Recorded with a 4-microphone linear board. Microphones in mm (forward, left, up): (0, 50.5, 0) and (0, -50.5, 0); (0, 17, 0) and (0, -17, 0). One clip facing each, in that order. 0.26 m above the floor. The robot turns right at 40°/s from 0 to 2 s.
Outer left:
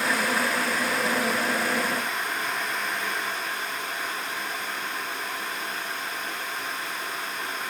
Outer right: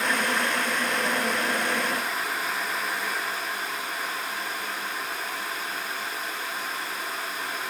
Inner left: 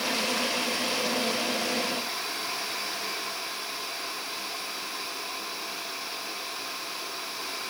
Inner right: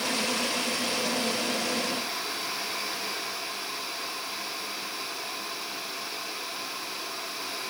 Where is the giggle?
No giggle in this recording.